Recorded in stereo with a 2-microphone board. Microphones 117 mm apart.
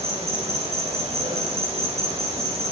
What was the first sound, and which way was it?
An insect, 65° right (ahead or behind).